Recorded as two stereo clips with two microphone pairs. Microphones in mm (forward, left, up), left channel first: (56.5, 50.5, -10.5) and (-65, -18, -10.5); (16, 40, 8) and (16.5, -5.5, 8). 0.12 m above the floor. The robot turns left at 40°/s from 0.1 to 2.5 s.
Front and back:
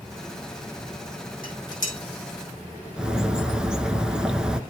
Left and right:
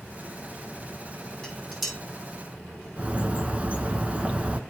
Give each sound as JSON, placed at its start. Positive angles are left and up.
{"t": 1.4, "sound": "dishes clattering", "azimuth_deg": 15, "distance_m": 3.0}
{"t": 3.0, "sound": "a bird", "azimuth_deg": -70, "distance_m": 0.8}